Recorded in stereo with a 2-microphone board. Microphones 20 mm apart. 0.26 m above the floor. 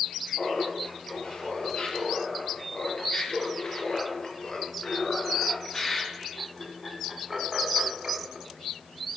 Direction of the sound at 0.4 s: 65° left (ahead or behind).